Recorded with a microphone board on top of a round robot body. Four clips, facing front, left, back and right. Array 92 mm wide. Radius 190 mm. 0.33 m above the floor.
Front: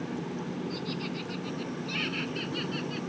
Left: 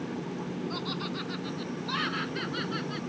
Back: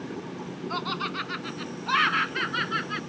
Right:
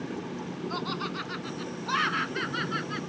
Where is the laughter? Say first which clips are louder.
Right 2 dB, back 5 dB; 170° right; by 3.0 s 165° right.